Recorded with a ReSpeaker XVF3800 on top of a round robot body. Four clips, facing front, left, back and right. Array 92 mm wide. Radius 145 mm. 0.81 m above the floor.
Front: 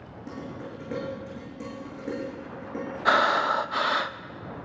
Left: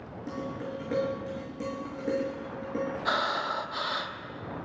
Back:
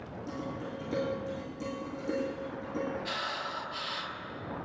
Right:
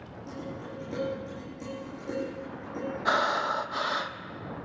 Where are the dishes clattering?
50° left, 8.5 m.